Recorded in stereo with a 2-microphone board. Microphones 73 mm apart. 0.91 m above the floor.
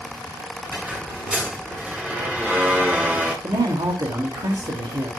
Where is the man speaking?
70° right (ahead or behind), 2.5 m.